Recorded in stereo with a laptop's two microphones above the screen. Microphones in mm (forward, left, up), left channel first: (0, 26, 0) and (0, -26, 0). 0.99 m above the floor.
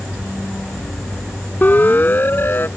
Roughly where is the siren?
Left.